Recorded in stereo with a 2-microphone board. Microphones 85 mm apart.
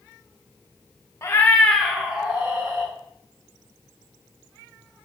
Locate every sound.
1.2 s a cat meowing: 35° left (ahead or behind), 0.6 m; by 2.9 s 30° right (ahead or behind), 1.1 m